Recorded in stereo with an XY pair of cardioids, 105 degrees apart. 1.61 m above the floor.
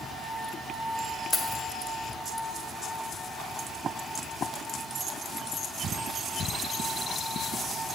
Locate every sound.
1.3 s keys jangling: 25° left, 1.9 m